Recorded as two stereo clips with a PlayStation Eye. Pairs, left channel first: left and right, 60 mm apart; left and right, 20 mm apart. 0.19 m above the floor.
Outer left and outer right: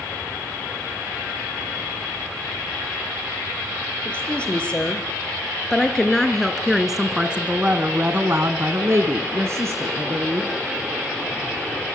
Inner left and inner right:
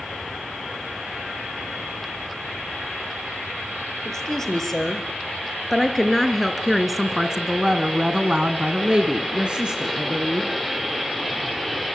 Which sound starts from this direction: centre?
A woman speaking, at 4.0 s.